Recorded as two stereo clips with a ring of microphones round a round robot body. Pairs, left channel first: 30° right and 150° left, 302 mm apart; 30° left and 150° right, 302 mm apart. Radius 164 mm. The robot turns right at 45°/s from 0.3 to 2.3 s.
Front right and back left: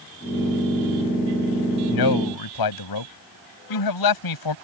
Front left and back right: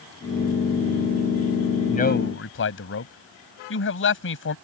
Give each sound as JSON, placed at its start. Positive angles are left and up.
{"t": 1.9, "sound": "a man speaking", "azimuth_deg": -40}